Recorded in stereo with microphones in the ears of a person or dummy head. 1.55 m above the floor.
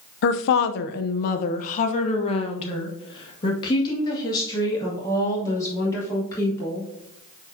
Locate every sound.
0.2 s a woman speaking: 65° left (ahead or behind), 0.8 m; by 6.9 s 15° left (ahead or behind), 4 m